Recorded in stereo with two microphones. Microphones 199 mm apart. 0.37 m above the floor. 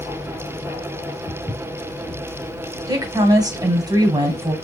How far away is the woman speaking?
About 1.3 m.